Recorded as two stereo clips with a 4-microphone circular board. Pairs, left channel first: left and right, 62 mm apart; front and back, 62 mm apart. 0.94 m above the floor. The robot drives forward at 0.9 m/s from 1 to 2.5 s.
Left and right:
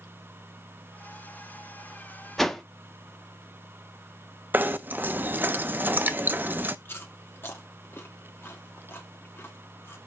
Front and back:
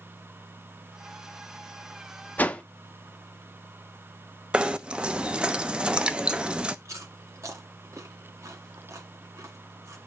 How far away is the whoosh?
About 0.7 m.